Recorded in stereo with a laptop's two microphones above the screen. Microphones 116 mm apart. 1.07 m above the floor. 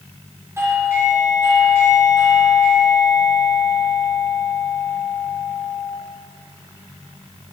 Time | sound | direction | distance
0.6 | a doorbell | 25° right (ahead or behind) | 4 m